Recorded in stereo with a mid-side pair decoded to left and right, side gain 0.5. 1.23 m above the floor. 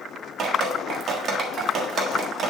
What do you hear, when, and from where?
0.4 s dripping: 55° right, 1.4 m